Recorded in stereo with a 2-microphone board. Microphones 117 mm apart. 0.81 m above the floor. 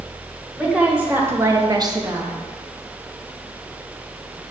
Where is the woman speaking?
10° right (ahead or behind), 2 m; by 2.4 s 20° right (ahead or behind), 1.1 m.